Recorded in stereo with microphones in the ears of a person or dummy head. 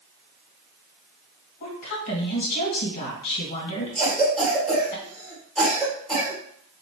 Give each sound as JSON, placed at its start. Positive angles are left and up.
{"t": 1.6, "sound": "a woman speaking", "side_deg": 50, "distance_m": 1.6}
{"t": 4.0, "sound": "a cough", "side_deg": 0, "distance_m": 2.0}